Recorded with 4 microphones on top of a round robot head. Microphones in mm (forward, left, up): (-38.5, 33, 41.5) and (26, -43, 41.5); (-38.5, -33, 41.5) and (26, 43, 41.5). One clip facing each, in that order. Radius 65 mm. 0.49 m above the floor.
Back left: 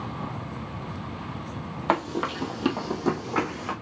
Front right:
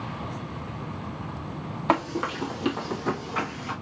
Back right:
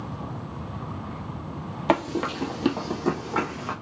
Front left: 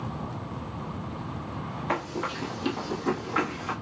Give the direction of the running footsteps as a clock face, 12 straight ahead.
5 o'clock.